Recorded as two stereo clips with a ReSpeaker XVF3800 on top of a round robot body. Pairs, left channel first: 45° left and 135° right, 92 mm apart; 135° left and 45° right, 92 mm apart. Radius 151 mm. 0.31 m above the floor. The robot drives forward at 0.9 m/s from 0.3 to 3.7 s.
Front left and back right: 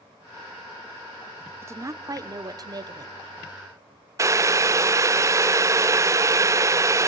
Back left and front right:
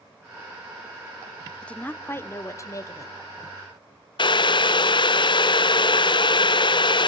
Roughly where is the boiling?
Behind.